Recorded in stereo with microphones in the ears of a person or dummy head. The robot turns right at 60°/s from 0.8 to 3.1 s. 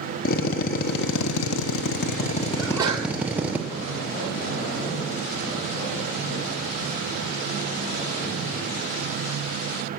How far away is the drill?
About 0.9 m.